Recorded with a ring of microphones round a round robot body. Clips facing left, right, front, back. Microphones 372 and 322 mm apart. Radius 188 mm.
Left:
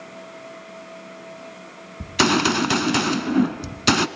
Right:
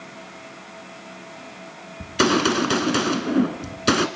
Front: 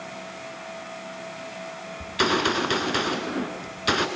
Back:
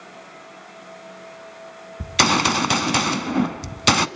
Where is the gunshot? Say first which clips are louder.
Right 1 dB, back 2 dB; 165° left, 0.9 m.